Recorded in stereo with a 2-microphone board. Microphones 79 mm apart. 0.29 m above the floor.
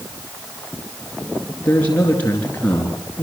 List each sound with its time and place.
1.6 s a man speaking: 20° left (ahead or behind), 4 m